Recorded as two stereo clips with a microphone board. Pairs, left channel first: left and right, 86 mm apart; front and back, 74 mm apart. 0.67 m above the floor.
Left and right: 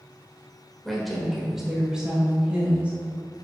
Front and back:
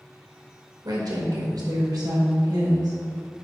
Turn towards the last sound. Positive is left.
turn(degrees=-160)